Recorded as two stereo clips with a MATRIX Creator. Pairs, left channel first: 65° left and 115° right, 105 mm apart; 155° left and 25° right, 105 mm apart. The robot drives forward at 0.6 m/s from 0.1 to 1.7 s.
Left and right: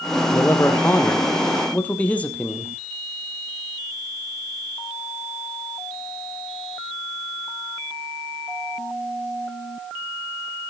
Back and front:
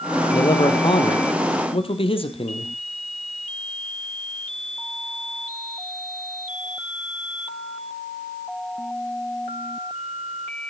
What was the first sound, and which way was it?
A man speaking, 125° left.